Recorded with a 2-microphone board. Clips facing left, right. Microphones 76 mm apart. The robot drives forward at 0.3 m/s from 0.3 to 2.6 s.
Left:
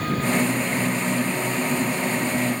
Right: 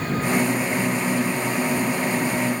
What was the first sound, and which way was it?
Only background noise.